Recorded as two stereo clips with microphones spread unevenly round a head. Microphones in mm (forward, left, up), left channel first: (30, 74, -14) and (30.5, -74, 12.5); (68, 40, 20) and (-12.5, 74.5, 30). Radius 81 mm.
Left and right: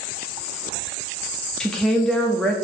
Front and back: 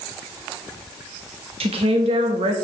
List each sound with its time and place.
1.6 s a woman speaking: 175° left, 1.5 m